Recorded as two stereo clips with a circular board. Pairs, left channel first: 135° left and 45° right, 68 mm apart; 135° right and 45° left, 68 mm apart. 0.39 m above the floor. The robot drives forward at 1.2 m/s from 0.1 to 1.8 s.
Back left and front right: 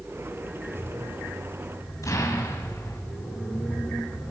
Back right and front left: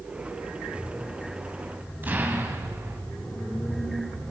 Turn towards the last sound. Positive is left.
turn(degrees=105)